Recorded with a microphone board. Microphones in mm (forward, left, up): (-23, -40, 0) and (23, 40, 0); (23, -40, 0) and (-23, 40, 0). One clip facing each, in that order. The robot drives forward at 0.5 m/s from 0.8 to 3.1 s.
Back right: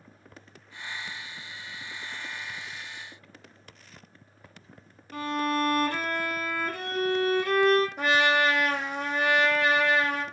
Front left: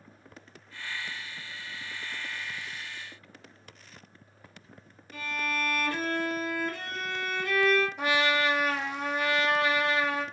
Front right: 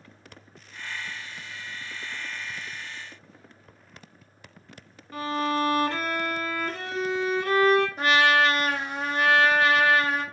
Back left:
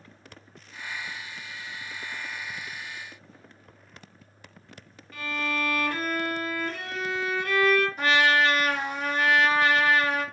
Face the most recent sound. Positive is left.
turn(degrees=-120)